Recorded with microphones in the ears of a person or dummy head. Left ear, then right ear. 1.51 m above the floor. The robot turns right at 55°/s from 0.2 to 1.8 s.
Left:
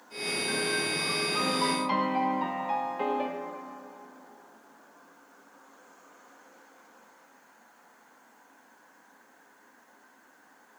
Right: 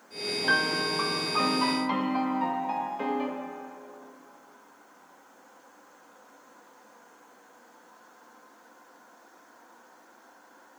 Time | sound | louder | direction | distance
0.4 | a piano | right 6 dB | 70° right | 0.5 m